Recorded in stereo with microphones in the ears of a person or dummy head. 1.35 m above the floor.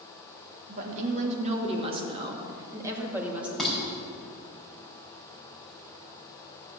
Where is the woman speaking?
45° right (ahead or behind), 3 m; by 3.5 s 5° right (ahead or behind), 3 m.